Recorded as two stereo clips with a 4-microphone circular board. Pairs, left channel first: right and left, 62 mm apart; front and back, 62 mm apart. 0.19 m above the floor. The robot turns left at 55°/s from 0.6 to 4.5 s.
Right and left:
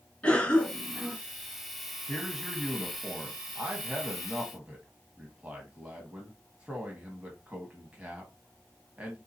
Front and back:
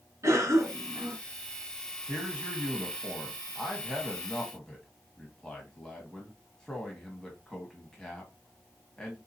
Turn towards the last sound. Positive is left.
turn(degrees=60)